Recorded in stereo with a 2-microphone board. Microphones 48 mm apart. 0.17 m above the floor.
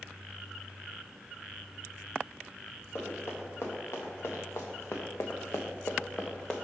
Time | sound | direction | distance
3.0 | running footsteps | 65° left (ahead or behind) | 2.0 m